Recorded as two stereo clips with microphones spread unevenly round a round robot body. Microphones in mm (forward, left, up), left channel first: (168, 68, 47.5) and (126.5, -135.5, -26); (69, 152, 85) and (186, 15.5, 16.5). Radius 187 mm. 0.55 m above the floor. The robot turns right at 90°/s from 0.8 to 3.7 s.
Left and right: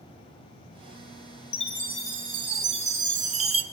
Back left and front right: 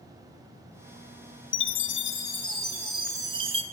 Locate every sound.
1.5 s a chime: 110° left, 0.7 m; by 3.6 s 60° right, 0.7 m